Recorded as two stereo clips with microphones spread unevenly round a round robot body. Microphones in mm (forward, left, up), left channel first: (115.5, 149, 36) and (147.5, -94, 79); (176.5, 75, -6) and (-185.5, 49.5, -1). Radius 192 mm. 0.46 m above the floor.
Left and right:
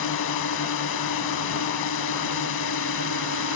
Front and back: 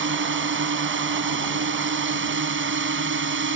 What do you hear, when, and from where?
0.0 s a drone: 125° left